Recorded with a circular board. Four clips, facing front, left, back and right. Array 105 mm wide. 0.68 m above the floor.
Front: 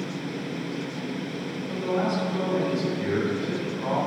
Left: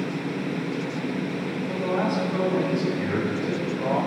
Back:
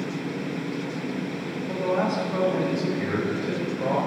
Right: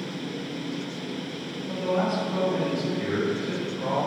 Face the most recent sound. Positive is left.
turn(degrees=175)